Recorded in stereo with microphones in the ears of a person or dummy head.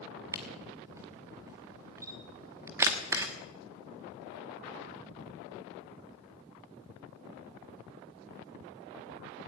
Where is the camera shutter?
15° right (ahead or behind), 1.1 m.